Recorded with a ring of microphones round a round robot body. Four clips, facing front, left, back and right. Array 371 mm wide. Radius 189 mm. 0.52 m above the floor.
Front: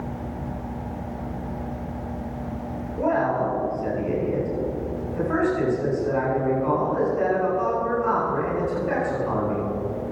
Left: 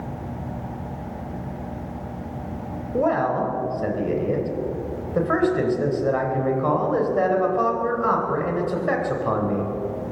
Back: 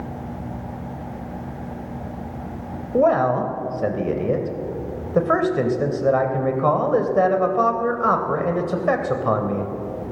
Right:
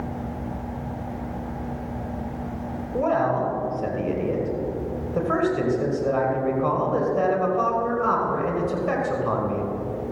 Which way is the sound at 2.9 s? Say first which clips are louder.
Left 1 dB, back 5 dB; 170° left.